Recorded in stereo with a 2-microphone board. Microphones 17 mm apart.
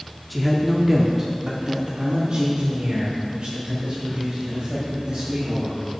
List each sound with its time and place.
0.3 s a man speaking: 5° right (ahead or behind), 0.8 m; by 5.8 s 65° right (ahead or behind), 3 m